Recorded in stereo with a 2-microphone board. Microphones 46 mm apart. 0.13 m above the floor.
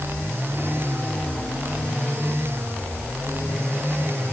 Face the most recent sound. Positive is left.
No sound to turn to.